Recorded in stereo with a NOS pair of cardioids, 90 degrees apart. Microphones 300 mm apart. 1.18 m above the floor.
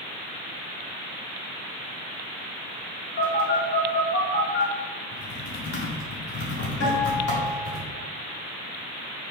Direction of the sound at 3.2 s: 45° left.